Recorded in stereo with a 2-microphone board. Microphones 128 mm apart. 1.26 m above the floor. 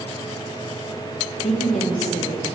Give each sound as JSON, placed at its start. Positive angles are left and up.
{"t": 1.4, "sound": "a woman speaking", "side_deg": 60, "distance_m": 1.1}